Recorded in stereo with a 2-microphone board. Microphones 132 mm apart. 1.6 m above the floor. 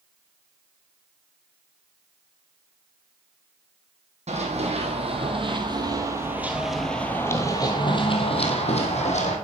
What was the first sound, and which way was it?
Running footsteps, 55° right (ahead or behind).